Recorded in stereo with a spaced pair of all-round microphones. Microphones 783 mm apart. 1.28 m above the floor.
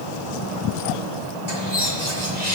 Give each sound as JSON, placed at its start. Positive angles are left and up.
{"t": 1.5, "sound": "a bird", "side_deg": 60, "distance_m": 2.0}